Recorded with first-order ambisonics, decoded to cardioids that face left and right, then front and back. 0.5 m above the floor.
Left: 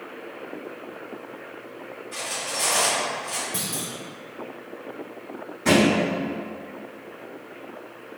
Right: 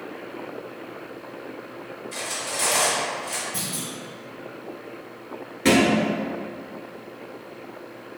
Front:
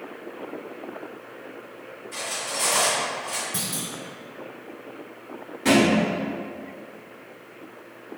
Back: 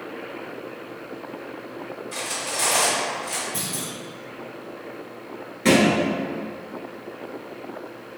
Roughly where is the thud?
Right.